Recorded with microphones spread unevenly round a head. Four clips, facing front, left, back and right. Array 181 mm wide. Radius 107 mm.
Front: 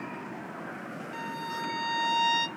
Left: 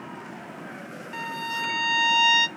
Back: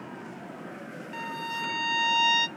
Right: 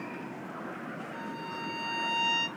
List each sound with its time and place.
1.1 s a violin: 70° left, 0.9 m